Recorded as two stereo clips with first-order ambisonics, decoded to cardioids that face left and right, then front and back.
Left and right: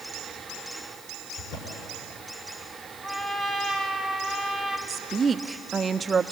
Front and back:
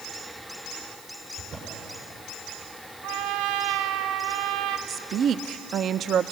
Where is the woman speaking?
150° right, 0.6 m.